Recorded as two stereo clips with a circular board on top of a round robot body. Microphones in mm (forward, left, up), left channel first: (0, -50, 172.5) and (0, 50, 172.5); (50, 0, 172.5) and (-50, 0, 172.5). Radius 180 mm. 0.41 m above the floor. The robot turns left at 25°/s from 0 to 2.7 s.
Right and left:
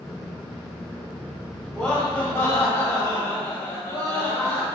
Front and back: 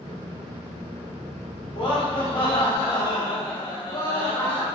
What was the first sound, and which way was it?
Laughter, 5° right.